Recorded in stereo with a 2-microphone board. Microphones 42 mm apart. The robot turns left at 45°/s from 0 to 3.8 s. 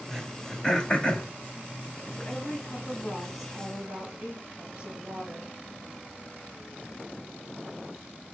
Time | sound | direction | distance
0.1 | throat clearing | centre (ahead or behind) | 1.6 m
2.2 | a woman speaking | 50° left | 4 m